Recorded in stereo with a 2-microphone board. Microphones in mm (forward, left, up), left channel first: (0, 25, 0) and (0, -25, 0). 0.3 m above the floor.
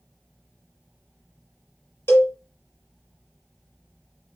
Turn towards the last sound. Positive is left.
turn(degrees=55)  # may be behind; listen again after turning